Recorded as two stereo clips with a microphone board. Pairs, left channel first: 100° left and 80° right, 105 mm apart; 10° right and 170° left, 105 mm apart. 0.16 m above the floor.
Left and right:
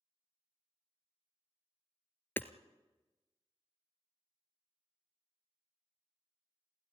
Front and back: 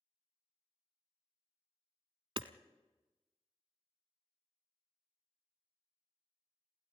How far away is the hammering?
About 0.9 m.